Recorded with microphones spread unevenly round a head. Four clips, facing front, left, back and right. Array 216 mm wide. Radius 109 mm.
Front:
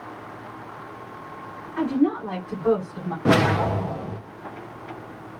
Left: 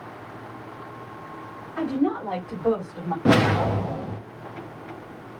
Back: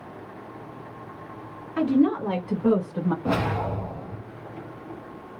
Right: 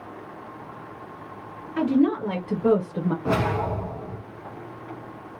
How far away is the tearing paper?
I don't hear tearing paper.